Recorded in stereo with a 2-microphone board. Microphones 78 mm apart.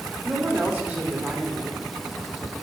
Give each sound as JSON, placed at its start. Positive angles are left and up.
{"t": 0.2, "sound": "a woman speaking", "side_deg": -20, "distance_m": 2.5}